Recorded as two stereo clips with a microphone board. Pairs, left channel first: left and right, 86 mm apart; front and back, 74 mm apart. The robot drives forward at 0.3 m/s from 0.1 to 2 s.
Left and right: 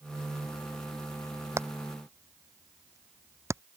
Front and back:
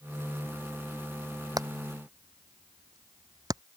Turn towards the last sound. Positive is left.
turn(degrees=-145)